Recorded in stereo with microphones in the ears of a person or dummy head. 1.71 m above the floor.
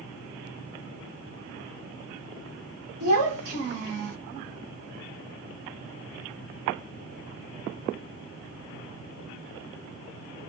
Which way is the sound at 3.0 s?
50° right (ahead or behind).